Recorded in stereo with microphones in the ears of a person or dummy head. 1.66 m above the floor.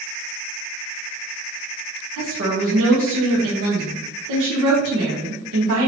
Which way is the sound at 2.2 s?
80° right.